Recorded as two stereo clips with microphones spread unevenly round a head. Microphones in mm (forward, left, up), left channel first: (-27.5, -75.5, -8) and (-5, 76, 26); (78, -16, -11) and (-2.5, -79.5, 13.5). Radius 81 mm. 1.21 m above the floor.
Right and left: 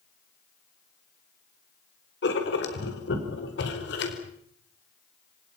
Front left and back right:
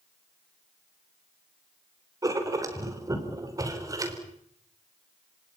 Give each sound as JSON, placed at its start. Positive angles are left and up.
{"t": 2.2, "sound": "writing", "azimuth_deg": -85, "distance_m": 4.5}